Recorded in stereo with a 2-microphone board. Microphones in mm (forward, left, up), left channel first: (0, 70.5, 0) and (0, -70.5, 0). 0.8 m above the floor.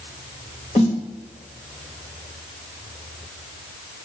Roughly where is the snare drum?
Left.